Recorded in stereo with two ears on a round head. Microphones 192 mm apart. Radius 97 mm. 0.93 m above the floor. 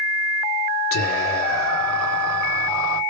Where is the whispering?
70° left (ahead or behind), 2.5 m.